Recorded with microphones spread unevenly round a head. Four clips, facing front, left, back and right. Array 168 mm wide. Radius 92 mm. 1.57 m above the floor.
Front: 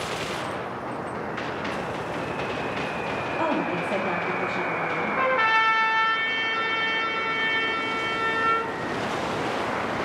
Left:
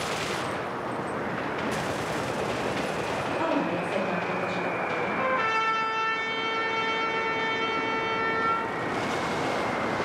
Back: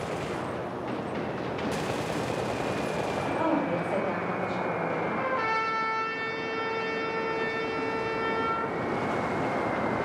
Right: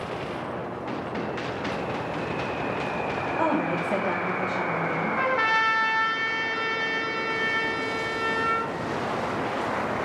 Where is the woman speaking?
50° right, 1.5 m.